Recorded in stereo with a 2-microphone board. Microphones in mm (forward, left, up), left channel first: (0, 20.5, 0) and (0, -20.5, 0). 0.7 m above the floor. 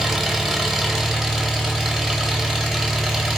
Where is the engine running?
10° right (ahead or behind), 0.8 m.